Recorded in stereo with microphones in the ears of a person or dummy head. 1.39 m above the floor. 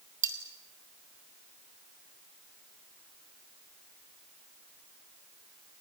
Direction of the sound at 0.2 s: 15° right (ahead or behind).